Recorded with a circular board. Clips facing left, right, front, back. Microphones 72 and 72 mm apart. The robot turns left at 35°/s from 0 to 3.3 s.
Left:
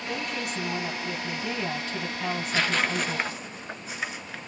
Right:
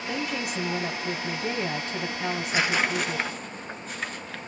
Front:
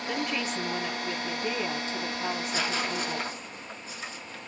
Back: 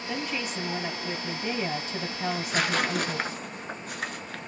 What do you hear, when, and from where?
0.1 s a woman speaking: 75° right, 2.5 m; by 3.3 s 170° left, 2.5 m
2.3 s tearing paper: 155° right, 0.7 m; by 4.5 s 170° left, 0.7 m